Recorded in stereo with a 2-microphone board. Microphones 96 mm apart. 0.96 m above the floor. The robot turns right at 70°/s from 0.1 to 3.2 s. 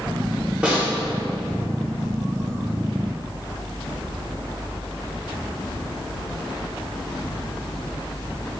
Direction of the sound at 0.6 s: 15° right (ahead or behind).